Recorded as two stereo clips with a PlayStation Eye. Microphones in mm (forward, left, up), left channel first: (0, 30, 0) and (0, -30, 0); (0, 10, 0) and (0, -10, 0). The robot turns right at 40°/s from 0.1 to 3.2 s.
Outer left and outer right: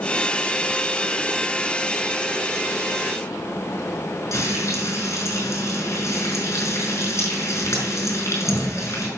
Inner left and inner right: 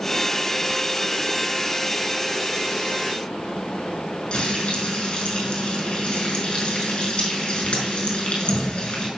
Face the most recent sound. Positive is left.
turn(degrees=50)  # may be behind; listen again after turning